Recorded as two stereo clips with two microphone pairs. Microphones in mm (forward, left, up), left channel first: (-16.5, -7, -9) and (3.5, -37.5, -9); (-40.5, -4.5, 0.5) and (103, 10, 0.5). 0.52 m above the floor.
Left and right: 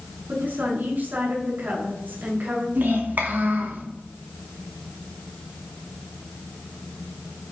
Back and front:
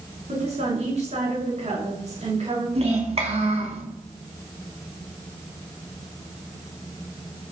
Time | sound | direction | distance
0.3 | a woman speaking | 30° right | 6 m
2.8 | a child speaking | 35° right | 4 m